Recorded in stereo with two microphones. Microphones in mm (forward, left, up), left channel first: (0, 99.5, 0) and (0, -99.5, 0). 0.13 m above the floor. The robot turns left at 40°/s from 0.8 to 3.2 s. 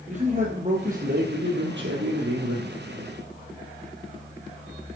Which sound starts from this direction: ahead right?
A man speaking, at 0.1 s.